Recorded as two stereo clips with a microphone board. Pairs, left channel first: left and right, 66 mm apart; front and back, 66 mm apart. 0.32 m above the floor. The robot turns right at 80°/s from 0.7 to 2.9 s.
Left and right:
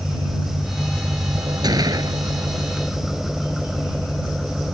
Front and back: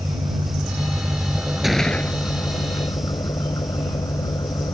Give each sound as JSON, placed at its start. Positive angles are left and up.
{"t": 0.0, "sound": "an engine running", "azimuth_deg": 180}
{"t": 1.6, "sound": "a gunshot", "azimuth_deg": -95}